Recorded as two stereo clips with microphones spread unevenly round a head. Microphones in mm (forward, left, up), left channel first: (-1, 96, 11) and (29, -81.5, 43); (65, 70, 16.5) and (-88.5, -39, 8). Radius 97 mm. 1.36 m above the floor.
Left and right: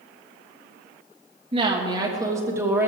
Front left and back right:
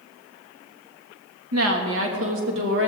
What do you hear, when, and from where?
1.5 s a woman speaking: 145° right, 2 m; by 2.9 s 165° right, 2.5 m